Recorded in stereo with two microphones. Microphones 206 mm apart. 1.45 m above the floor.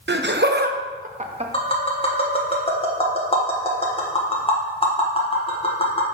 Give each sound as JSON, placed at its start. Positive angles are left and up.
{"t": 0.1, "sound": "laughter", "side_deg": -60, "distance_m": 0.7}
{"t": 1.5, "sound": "tapping", "side_deg": 30, "distance_m": 1.3}